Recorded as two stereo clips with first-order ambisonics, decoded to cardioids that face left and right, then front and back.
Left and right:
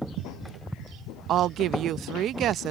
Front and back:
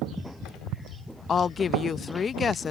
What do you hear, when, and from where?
1.3 s a woman speaking: 60° right